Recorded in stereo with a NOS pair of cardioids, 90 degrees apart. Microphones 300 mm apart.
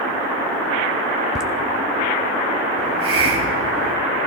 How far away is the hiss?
About 2.5 m.